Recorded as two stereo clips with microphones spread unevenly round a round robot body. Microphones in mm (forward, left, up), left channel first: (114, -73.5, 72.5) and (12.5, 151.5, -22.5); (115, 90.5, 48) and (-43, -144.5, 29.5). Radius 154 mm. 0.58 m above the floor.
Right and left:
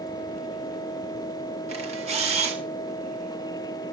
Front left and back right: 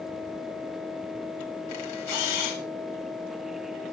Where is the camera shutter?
60° left, 3.5 m.